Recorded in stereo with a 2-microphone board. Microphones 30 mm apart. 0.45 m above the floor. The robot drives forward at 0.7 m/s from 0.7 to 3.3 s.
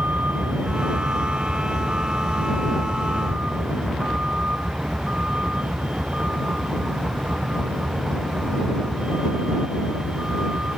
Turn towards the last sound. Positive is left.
turn(degrees=-40)  # may be behind; listen again after turning